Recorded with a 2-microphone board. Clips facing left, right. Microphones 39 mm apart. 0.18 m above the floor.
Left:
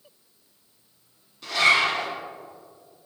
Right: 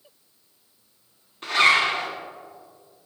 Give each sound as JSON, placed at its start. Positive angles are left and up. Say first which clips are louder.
{"t": 1.4, "sound": "a zipper", "louder": "right 1 dB", "side_deg": -45, "distance_m": 1.6}